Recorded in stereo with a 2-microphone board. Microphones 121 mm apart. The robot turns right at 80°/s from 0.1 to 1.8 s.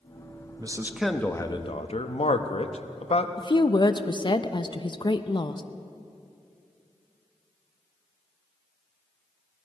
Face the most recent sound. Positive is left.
turn(degrees=40)  # may be behind; listen again after turning